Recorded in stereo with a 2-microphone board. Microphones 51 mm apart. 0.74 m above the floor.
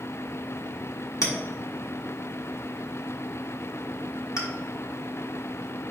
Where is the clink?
80° left, 1.0 m.